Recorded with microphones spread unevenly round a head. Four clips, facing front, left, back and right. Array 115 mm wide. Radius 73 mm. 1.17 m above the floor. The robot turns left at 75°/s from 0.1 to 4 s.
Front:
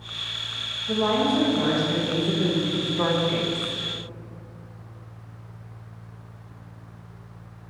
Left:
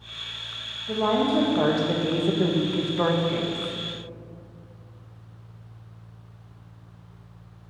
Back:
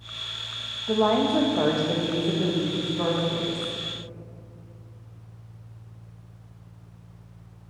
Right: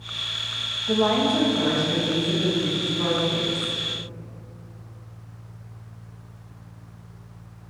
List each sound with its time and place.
0.9 s a woman speaking: 165° right, 1.4 m; by 3.7 s 20° right, 1.4 m